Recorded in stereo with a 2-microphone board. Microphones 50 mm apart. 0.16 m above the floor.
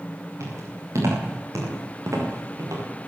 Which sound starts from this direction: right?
Footsteps, at 0.4 s.